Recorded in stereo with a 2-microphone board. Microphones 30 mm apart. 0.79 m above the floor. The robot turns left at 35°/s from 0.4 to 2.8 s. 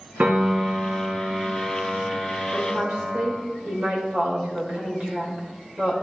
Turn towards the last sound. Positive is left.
turn(degrees=-55)  # may be behind; listen again after turning